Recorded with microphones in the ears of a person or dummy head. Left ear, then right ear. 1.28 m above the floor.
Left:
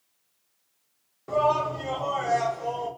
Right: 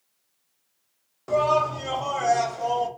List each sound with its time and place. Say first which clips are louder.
1.3 s a shout: right 2 dB; 25° right (ahead or behind), 0.6 m